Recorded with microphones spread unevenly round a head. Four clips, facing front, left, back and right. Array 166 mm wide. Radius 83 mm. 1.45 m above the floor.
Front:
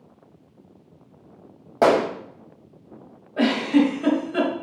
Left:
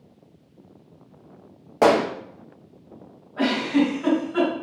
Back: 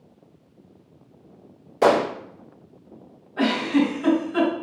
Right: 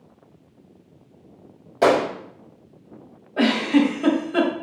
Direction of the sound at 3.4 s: 65° right.